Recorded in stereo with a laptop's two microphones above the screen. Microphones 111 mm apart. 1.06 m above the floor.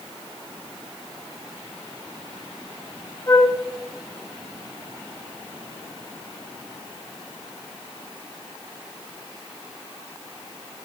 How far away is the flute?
About 2 m.